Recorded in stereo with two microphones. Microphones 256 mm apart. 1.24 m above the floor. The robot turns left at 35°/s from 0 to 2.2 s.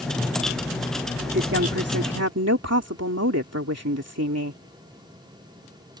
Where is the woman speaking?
50° right; by 4.6 s 80° right.